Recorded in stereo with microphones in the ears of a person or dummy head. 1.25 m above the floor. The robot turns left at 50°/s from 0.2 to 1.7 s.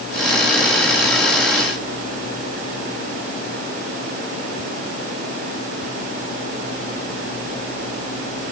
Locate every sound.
Only background noise.